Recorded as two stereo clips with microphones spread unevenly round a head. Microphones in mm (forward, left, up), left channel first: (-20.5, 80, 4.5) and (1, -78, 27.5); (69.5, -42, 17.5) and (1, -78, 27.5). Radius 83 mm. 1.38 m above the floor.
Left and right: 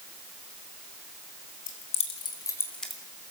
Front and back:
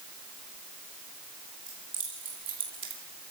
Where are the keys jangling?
140° left, 2.5 m; by 3.0 s 165° right, 2.0 m.